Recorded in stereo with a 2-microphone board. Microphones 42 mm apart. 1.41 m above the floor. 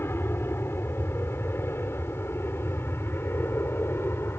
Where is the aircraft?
70° left (ahead or behind); by 4.4 s 75° left (ahead or behind).